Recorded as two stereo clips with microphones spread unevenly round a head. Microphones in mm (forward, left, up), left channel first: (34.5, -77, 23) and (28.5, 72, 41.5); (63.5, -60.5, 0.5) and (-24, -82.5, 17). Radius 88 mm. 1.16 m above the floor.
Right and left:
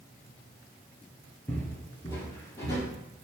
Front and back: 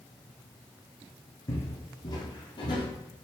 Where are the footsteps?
10° right, 1.2 m; by 2.9 s 15° right, 1.8 m.